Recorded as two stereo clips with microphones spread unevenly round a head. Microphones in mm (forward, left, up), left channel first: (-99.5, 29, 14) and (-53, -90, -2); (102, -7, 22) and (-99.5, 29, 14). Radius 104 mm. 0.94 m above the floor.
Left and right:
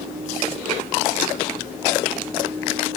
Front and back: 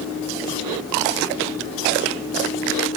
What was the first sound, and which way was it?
Only background noise.